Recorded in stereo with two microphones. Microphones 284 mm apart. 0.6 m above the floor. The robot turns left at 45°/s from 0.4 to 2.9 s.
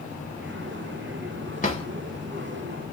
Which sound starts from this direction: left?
A drawer, at 1.6 s.